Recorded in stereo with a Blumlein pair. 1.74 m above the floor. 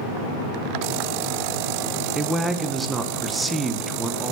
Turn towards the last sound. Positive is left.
turn(degrees=-10)